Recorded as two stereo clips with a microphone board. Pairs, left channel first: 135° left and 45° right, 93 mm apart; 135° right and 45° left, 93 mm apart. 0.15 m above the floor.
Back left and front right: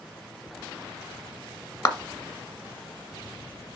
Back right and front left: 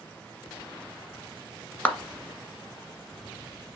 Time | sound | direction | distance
1.9 | a clap | 160° left | 1.5 m